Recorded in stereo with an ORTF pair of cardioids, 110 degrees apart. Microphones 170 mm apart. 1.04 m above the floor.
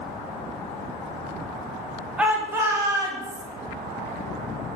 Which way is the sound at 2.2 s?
10° right.